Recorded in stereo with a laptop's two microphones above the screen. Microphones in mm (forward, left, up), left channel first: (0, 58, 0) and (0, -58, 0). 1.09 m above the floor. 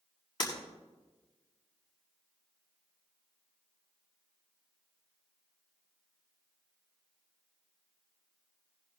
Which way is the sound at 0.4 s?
45° left (ahead or behind).